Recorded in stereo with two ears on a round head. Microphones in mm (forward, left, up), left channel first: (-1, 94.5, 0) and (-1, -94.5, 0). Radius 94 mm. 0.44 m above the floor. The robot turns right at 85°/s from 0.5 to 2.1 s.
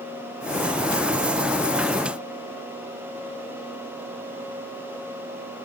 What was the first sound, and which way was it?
Only background noise.